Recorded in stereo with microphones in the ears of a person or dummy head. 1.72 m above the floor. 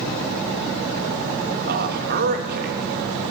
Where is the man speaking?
50° right (ahead or behind), 3 m.